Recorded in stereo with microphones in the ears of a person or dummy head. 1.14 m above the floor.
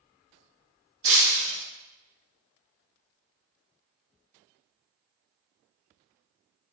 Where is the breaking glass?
65° right (ahead or behind), 0.8 m.